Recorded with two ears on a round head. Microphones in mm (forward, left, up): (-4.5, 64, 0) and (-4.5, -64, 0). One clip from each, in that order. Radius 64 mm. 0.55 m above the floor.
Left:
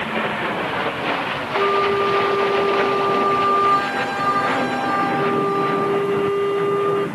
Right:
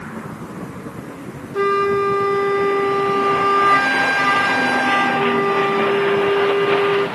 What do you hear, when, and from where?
1.5 s a flute: 40° right (ahead or behind), 0.7 m